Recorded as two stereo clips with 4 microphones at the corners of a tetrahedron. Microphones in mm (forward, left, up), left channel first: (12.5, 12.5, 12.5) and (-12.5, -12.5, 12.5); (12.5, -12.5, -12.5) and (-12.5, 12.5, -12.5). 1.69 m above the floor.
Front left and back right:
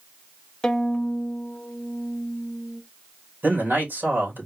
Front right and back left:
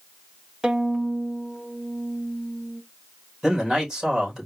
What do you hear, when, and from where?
0.6 s a violin: 90° left, 0.8 m
3.4 s a man speaking: 150° right, 3 m